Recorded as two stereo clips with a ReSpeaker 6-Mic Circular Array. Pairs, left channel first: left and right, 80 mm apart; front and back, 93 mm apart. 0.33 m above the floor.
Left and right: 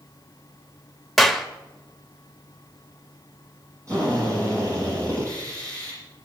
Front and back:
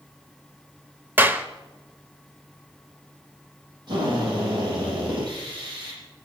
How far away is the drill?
About 9.5 m.